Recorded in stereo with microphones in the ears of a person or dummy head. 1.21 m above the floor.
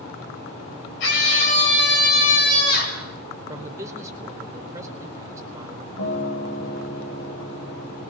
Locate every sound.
1.0 s a scream: 70° left (ahead or behind), 6.5 m; by 3.0 s 60° left (ahead or behind), 6 m
3.5 s a man speaking: 15° right (ahead or behind), 4 m
6.0 s a guitar: 75° left (ahead or behind), 6.5 m